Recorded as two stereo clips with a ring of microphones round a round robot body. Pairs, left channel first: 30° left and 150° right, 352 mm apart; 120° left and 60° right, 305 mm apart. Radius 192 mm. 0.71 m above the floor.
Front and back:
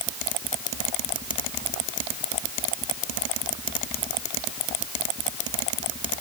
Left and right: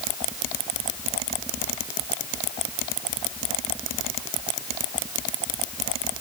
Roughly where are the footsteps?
No footsteps in this recording.